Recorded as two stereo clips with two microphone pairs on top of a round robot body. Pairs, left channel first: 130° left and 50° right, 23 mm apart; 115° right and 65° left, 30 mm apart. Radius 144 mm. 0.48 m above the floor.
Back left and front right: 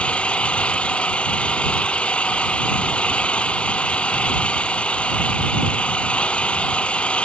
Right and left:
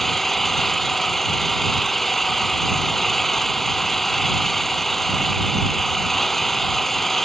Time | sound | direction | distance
0.0 | an engine running | 160° left | ?